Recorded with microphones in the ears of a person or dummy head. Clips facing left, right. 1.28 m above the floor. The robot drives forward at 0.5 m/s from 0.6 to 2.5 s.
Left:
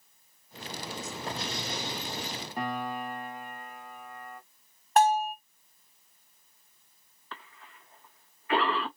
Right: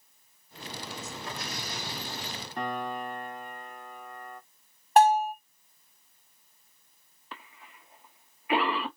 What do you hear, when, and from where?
1.3 s an explosion: 25° left (ahead or behind), 0.8 m; by 2.5 s 15° left (ahead or behind), 1.3 m
2.6 s a piano: centre (ahead or behind), 0.6 m
5.0 s a bell: 30° right (ahead or behind), 2 m
7.3 s a cough: 15° right (ahead or behind), 1.2 m